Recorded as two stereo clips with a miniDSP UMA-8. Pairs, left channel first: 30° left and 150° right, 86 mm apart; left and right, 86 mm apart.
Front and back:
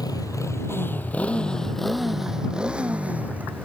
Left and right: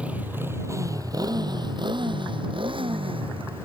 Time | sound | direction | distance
0.0 | a motorcycle | 15° right | ?